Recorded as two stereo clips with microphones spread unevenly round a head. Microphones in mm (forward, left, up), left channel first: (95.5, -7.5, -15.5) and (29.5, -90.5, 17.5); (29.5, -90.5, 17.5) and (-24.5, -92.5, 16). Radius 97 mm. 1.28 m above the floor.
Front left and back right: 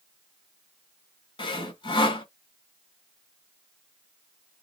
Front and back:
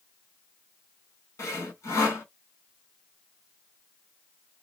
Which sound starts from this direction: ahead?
Sawing, at 1.4 s.